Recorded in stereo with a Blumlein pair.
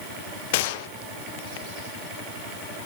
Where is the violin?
I don't hear a violin.